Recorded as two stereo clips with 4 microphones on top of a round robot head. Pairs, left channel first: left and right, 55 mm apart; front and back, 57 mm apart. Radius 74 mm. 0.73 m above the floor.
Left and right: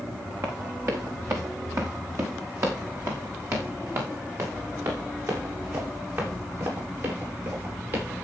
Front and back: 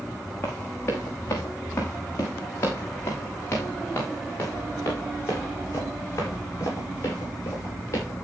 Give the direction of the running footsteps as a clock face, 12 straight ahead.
2 o'clock.